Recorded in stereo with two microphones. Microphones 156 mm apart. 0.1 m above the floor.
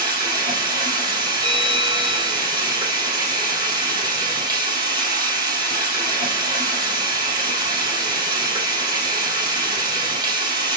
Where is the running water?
25° right (ahead or behind), 3 m.